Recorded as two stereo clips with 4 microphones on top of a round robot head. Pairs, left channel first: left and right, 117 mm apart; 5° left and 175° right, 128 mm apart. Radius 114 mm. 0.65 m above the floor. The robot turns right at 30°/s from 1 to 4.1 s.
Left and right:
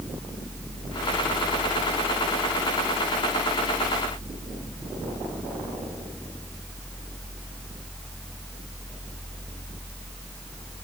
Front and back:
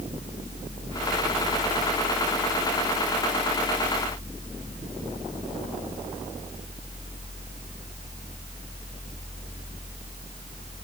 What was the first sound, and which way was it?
Only background noise.